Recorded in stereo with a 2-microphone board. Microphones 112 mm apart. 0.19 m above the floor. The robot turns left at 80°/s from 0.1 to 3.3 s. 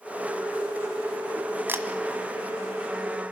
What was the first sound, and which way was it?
A camera shutter, 20° right (ahead or behind).